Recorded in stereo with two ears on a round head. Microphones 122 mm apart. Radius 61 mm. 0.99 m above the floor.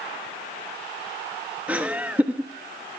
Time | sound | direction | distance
1.7 | laughter | 10° right (ahead or behind) | 1.2 m